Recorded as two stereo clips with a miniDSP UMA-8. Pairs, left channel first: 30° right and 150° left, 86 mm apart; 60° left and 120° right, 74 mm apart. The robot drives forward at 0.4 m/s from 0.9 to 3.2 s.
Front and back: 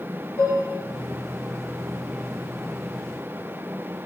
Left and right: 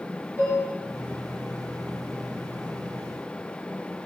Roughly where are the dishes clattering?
Right.